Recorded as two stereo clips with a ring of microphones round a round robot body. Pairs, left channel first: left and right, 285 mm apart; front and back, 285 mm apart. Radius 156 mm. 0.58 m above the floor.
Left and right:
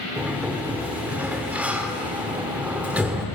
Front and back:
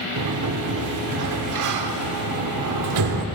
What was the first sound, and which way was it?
A sliding door, 175° right.